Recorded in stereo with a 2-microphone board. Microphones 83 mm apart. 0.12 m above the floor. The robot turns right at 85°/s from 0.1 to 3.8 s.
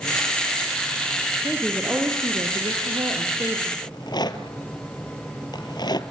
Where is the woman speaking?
160° left, 4 m; by 3.7 s 5° right, 4 m.